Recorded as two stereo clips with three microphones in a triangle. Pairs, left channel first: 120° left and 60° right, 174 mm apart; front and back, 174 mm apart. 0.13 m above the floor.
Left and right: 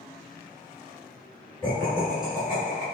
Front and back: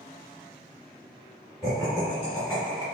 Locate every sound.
1.6 s laughter: 50° left, 1.7 m; by 2.8 s 100° left, 1.8 m